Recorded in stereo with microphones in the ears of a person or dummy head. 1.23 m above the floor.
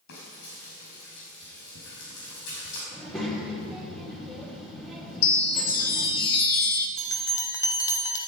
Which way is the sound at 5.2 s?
60° left (ahead or behind).